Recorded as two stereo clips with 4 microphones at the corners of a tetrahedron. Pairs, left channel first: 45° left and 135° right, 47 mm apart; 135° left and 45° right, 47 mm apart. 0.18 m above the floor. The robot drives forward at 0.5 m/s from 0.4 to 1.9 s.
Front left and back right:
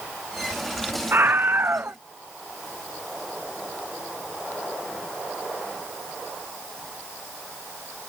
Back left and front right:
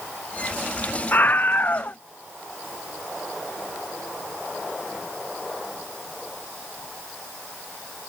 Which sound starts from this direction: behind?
A scream, at 1.1 s.